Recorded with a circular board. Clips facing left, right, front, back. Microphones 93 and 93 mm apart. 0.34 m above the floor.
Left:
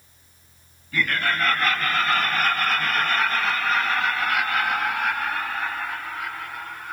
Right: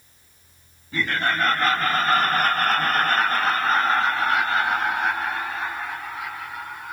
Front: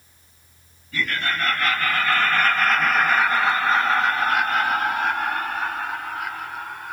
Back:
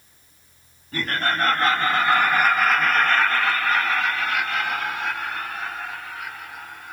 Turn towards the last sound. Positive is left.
turn(degrees=-15)